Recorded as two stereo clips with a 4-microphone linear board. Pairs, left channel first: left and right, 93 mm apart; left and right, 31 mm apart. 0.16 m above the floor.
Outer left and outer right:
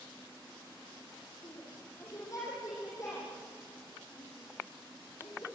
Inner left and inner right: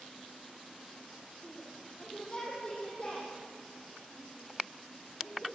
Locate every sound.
1.4 s a shout: 35° left (ahead or behind), 6.5 m; by 5.5 s 30° left (ahead or behind), 9 m